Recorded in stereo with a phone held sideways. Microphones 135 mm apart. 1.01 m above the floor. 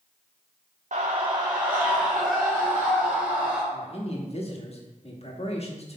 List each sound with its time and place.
0.9 s a scream: 65° right (ahead or behind), 0.7 m; by 3.6 s 5° left (ahead or behind), 4 m
3.7 s a man speaking: 50° left (ahead or behind), 1.4 m